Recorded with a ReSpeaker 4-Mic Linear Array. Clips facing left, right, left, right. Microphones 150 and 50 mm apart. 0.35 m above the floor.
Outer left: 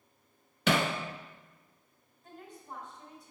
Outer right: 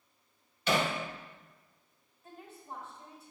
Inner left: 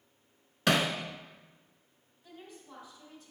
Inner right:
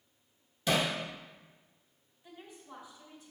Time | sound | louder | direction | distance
0.7 | hammering | outer left 2 dB, inner left 3 dB | 80° left | 0.9 m
2.2 | a woman speaking | even, even | 5° right (ahead or behind) | 3 m